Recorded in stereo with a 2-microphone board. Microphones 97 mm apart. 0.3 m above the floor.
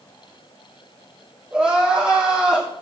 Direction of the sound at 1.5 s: 10° right (ahead or behind).